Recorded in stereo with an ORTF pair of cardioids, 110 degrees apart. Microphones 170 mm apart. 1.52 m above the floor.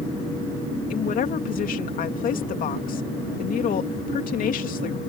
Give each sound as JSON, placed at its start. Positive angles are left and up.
{"t": 0.9, "sound": "a woman speaking", "azimuth_deg": 55}